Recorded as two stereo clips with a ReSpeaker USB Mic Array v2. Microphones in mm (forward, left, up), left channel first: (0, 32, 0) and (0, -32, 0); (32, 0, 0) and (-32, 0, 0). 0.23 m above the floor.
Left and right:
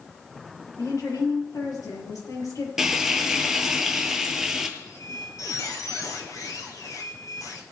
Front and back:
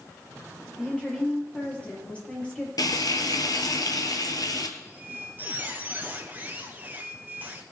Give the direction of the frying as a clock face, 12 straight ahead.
12 o'clock.